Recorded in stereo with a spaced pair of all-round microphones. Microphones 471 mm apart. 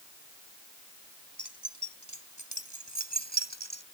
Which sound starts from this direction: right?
Keys jangling, at 1.4 s.